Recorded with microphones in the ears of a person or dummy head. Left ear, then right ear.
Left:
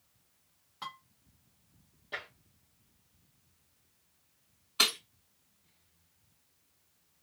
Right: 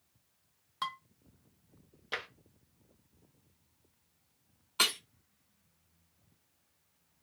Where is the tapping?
55° right (ahead or behind), 0.9 m.